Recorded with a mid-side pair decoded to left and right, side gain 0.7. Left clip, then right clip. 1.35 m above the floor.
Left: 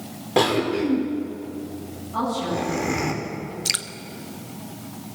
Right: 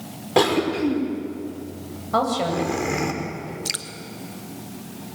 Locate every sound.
0.4 s a cough: 10° right, 5 m
2.1 s a woman speaking: 55° right, 8 m
3.6 s dripping: 20° left, 1.0 m